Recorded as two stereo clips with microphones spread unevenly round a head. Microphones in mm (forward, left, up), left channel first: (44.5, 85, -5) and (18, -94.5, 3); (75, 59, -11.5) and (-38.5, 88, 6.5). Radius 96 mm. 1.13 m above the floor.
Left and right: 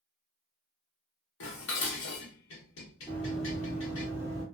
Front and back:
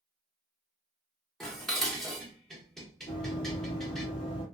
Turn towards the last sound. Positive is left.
turn(degrees=-40)